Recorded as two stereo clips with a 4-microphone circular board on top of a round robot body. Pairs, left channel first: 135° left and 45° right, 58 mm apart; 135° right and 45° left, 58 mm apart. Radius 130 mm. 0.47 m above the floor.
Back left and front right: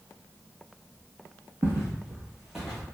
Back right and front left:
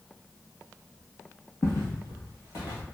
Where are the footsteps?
90° right, 0.8 m; by 2.8 s 135° right, 1.2 m.